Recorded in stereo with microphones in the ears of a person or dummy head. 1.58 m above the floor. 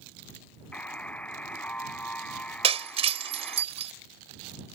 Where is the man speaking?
I don't hear a man speaking.